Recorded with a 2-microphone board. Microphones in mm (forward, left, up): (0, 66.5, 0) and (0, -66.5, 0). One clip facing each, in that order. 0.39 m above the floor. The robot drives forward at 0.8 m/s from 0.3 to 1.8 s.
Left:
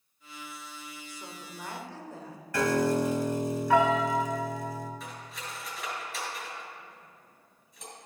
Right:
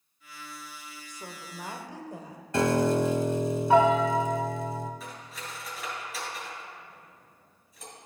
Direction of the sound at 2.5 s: 25° right (ahead or behind).